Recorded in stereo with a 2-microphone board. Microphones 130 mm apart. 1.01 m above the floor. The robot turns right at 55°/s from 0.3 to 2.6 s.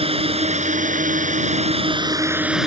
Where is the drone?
130° right; by 2.7 s 5° right.